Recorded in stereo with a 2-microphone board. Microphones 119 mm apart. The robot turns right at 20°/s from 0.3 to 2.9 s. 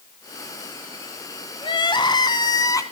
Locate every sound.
1.6 s crying: 40° left (ahead or behind), 1.5 m; by 2.8 s 25° left (ahead or behind), 1.5 m